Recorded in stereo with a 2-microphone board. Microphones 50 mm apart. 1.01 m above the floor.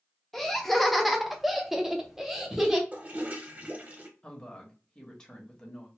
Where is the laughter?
5° left (ahead or behind), 1.0 m; by 2.8 s 15° right (ahead or behind), 0.8 m.